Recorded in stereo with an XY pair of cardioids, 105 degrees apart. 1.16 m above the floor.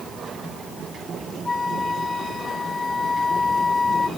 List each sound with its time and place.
1.4 s a flute: 25° left